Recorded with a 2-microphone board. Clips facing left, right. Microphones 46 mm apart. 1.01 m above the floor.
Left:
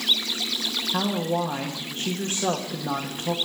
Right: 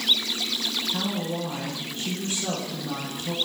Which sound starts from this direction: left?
A woman speaking, at 0.9 s.